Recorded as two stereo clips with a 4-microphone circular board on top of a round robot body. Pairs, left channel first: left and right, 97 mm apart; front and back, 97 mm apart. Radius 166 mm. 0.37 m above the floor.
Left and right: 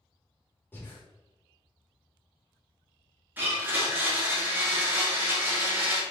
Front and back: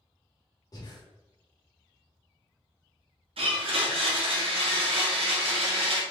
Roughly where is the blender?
Behind.